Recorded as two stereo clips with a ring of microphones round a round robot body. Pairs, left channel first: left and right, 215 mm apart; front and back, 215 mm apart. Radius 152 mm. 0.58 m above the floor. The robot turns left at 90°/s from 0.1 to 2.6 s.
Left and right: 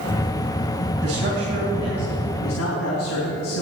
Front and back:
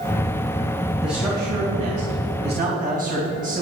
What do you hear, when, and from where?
1.0 s a man speaking: 85° right, 3.5 m; by 3.6 s 130° left, 3.5 m